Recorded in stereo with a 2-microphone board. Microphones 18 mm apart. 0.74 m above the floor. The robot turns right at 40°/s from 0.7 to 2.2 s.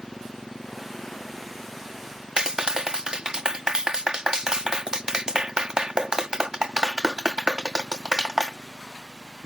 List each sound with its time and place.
0.0 s a motorcycle: 65° left; by 9.4 s 125° left
2.4 s a clap: 50° right (ahead or behind)